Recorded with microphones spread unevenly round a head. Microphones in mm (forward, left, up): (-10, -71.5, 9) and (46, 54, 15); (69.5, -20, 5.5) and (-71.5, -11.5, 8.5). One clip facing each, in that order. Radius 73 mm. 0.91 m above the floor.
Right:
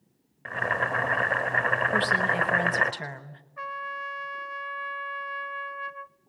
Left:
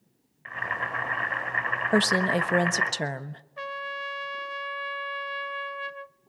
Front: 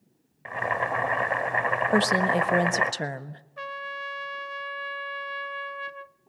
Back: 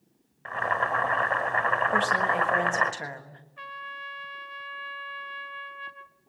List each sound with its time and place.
0.5 s boiling: 80° right, 1.5 m
1.9 s a woman speaking: 35° left, 1.2 m
3.6 s a trumpet: 15° left, 0.6 m